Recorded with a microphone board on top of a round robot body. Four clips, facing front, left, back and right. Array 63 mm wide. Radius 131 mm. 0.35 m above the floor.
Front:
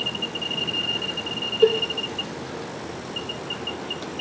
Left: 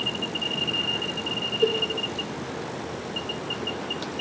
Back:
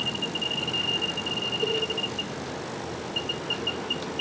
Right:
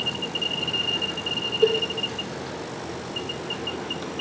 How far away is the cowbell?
About 1.0 m.